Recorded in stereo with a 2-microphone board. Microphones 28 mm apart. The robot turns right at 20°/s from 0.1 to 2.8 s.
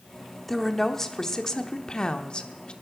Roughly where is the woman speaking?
Ahead.